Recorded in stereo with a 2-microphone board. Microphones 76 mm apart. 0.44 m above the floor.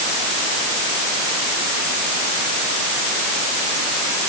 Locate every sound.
Only background noise.